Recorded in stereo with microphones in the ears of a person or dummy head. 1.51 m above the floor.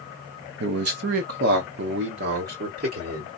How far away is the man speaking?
About 0.6 m.